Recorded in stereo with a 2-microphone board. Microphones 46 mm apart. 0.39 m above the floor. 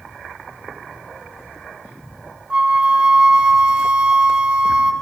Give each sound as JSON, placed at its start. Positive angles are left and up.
{"t": 2.5, "sound": "a flute", "side_deg": -20, "distance_m": 0.6}